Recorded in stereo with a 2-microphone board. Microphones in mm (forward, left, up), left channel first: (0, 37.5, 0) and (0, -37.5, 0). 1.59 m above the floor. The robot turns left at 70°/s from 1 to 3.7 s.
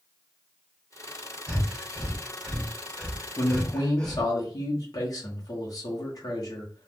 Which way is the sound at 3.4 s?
30° left (ahead or behind).